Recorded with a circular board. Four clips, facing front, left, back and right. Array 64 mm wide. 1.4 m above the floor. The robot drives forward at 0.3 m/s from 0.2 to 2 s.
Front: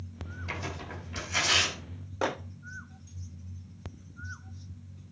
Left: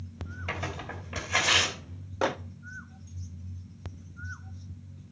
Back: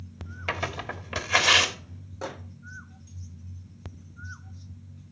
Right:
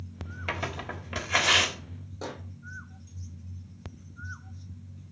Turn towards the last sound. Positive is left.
turn(degrees=60)